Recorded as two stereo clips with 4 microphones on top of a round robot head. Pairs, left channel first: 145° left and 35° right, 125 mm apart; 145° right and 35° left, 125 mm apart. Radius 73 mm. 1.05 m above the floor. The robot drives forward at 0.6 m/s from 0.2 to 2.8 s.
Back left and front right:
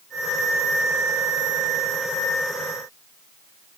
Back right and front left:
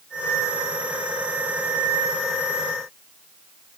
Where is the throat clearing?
I don't hear throat clearing.